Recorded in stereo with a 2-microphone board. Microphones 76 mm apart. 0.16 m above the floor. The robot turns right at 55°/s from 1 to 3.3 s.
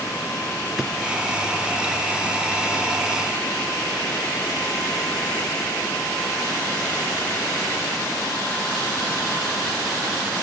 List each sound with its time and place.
0.8 s a drawer: 5° right (ahead or behind), 1.0 m